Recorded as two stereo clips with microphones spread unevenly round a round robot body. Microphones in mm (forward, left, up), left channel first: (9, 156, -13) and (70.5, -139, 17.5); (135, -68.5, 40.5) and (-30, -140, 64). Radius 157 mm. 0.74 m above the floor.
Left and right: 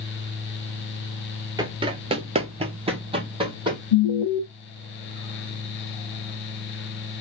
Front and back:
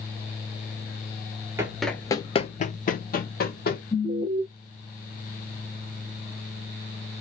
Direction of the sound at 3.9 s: 105° left.